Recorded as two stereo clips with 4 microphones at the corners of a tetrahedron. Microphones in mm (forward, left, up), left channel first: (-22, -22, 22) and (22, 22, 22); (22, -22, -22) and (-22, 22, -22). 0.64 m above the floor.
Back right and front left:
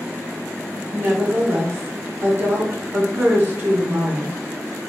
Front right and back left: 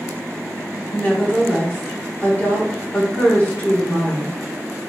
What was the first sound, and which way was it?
A woman speaking, 5° left.